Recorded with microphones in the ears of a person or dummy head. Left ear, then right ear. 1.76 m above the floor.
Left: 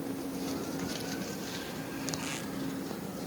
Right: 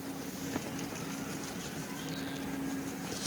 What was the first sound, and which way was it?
Only background noise.